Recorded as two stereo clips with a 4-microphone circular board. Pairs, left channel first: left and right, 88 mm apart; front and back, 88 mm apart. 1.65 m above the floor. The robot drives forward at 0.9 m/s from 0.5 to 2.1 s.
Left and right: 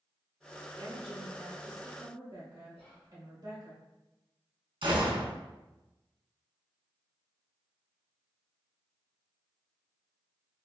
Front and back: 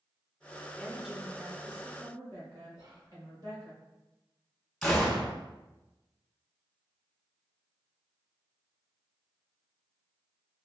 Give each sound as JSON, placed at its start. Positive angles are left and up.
{"t": 0.8, "sound": "a woman speaking", "azimuth_deg": -80, "distance_m": 1.1}
{"t": 2.7, "sound": "whispering", "azimuth_deg": 165, "distance_m": 1.6}
{"t": 4.8, "sound": "a gunshot", "azimuth_deg": -85, "distance_m": 0.9}